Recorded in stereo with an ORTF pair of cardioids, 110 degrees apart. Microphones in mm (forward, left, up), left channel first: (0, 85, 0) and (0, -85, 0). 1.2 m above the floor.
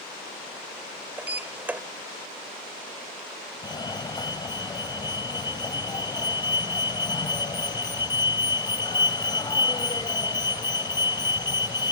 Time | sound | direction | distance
1.2 | a sliding door | 10° right | ?
3.6 | a fire alarm | 25° left | ?